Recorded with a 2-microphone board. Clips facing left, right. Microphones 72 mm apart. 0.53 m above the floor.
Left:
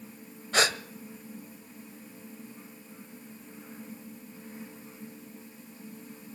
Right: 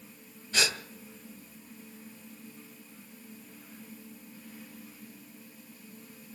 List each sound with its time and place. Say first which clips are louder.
0.5 s a gasp: left 5 dB; 60° left (ahead or behind), 1.4 m